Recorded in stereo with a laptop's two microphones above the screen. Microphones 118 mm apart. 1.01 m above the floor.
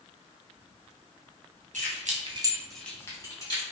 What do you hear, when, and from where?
1.7 s keys jangling: 90° right, 0.9 m; by 3.6 s 35° left (ahead or behind), 1.6 m